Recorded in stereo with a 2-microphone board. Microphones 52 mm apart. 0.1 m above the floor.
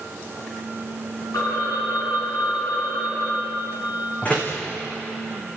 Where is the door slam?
30° left (ahead or behind), 4.5 m.